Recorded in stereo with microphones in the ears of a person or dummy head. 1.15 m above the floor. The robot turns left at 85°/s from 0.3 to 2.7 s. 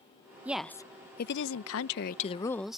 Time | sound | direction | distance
0.5 | a woman speaking | 165° right | ?